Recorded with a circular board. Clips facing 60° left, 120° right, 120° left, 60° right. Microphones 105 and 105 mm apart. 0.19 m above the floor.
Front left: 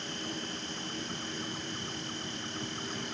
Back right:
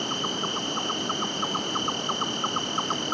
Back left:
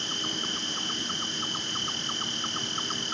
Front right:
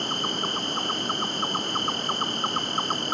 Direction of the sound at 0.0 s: 100° right.